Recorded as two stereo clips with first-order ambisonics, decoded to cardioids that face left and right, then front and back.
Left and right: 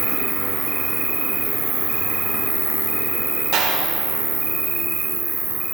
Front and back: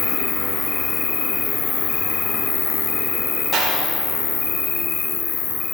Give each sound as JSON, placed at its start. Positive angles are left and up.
{"t": 0.0, "sound": "an insect", "azimuth_deg": -25, "distance_m": 0.8}
{"t": 3.5, "sound": "a clap", "azimuth_deg": -115, "distance_m": 4.0}